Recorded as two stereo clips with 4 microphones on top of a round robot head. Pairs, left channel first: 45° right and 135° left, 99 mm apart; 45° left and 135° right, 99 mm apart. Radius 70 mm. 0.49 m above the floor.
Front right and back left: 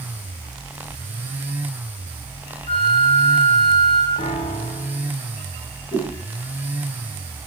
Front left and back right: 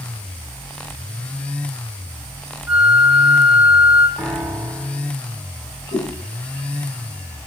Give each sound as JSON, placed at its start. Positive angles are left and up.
{"t": 2.7, "sound": "a flute", "azimuth_deg": -55, "distance_m": 3.5}
{"t": 4.2, "sound": "a piano", "azimuth_deg": -50, "distance_m": 2.5}
{"t": 5.9, "sound": "a whoosh", "azimuth_deg": 25, "distance_m": 8.0}